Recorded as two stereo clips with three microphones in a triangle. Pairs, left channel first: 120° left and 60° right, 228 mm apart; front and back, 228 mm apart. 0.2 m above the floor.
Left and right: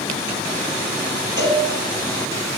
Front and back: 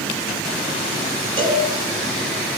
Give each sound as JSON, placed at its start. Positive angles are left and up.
{"t": 1.4, "sound": "a cowbell", "azimuth_deg": -40, "distance_m": 2.5}